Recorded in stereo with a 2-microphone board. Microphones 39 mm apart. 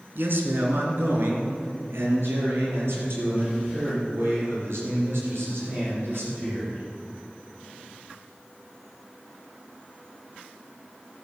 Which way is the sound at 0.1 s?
65° right (ahead or behind).